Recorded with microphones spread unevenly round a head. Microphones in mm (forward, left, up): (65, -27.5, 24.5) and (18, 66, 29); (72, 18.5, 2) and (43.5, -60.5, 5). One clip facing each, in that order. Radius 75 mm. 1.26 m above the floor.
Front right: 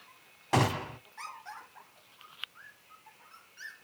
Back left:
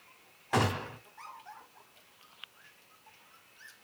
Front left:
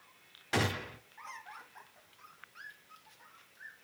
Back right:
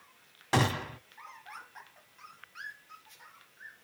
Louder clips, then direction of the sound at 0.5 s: Front right 2 dB, back right 5 dB; 120° right.